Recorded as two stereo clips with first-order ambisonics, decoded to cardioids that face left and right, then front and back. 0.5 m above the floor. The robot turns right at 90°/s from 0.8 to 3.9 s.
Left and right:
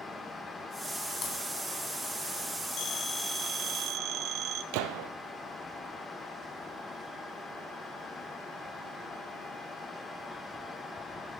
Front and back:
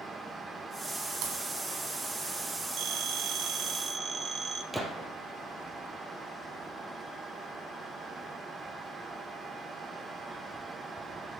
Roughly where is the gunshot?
Right.